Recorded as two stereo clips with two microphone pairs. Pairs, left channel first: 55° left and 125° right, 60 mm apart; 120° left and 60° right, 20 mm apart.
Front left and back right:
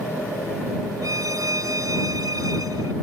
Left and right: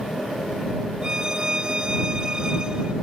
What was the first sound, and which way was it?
A violin, 115° right.